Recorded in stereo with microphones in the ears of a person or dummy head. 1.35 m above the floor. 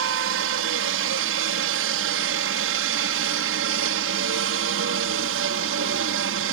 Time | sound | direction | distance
0.0 | a helicopter | 65° right (ahead or behind) | ?